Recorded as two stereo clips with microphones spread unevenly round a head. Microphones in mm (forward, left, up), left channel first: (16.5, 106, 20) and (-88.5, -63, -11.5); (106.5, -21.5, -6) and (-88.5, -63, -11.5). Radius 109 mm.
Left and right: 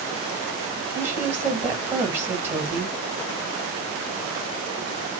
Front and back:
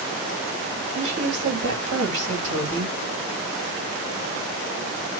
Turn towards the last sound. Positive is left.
turn(degrees=160)